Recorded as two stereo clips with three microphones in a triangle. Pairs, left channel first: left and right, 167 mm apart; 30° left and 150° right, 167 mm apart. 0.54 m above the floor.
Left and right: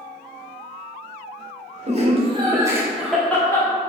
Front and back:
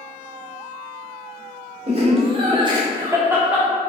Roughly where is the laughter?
Behind right.